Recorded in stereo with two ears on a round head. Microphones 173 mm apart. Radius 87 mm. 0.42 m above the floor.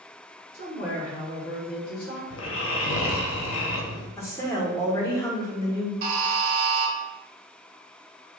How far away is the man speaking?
About 1.2 m.